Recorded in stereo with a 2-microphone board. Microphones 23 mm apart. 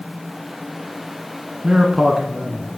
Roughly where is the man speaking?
Right.